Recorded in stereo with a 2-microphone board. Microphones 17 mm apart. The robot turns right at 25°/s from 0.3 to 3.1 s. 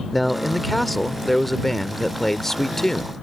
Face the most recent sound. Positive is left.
turn(degrees=20)  # may be behind; listen again after turning